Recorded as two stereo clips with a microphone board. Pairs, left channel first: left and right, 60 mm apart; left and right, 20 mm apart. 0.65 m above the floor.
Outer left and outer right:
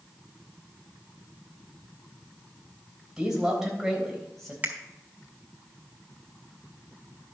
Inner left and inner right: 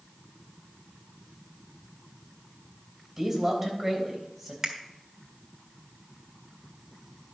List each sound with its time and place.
3.2 s a man speaking: 10° right (ahead or behind), 3 m; by 4.5 s centre (ahead or behind), 3.5 m
4.6 s a finger snap: 30° right (ahead or behind), 1.5 m